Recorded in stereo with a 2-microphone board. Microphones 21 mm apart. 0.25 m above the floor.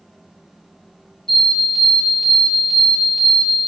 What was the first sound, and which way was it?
An alarm, 25° left (ahead or behind).